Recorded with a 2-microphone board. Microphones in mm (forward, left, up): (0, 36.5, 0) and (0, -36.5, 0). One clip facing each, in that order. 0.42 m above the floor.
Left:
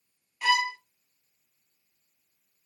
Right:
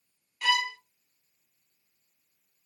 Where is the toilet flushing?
No toilet flushing in this recording.